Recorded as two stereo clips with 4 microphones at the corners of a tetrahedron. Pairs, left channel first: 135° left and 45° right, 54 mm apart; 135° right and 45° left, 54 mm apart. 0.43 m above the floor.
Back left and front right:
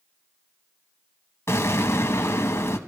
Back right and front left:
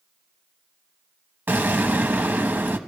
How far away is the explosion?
About 1.1 m.